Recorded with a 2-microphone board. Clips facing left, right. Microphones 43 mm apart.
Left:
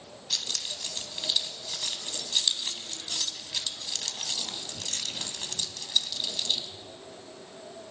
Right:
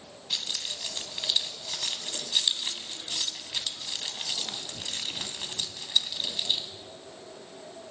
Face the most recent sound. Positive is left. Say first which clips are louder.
# right 1 dB
turn(degrees=-20)  # may be behind; listen again after turning